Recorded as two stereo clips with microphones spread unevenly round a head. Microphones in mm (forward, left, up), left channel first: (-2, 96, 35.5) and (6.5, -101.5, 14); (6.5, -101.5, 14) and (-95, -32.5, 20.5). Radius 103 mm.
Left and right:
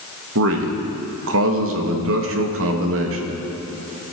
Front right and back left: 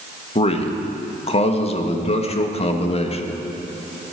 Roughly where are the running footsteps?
No running footsteps in this recording.